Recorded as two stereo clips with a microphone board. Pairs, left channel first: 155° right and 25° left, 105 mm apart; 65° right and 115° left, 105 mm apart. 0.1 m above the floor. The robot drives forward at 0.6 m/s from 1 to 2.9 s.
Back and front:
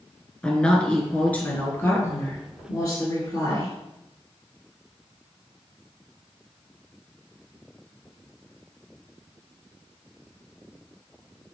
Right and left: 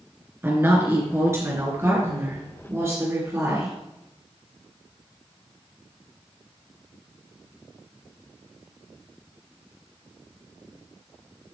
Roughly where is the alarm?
I don't hear an alarm.